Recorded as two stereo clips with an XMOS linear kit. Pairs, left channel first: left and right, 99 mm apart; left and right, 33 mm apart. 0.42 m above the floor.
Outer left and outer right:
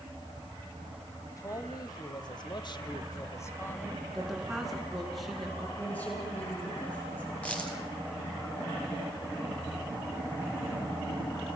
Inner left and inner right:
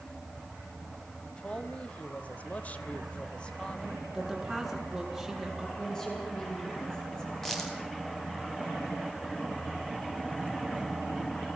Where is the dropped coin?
15° left (ahead or behind), 4 m.